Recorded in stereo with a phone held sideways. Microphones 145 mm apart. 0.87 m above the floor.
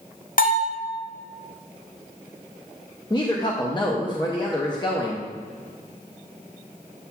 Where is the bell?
75° left (ahead or behind), 1.1 m.